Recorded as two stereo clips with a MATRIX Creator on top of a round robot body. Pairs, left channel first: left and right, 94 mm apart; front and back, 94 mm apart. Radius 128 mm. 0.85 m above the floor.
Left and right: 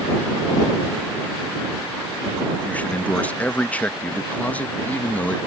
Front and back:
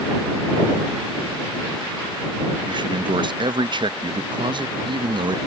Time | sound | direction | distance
2.6 | a man speaking | 165° left | ?